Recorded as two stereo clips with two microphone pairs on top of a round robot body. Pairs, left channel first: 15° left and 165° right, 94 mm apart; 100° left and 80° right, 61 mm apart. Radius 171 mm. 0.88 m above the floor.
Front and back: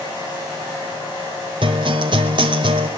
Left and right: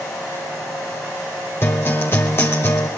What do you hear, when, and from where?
1.6 s a guitar: 160° left, 0.7 m